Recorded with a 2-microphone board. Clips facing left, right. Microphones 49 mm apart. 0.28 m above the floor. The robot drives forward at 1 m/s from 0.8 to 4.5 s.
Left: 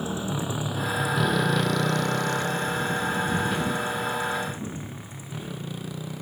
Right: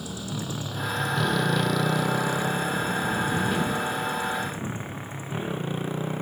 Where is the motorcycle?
30° left (ahead or behind); by 6.2 s 35° right (ahead or behind).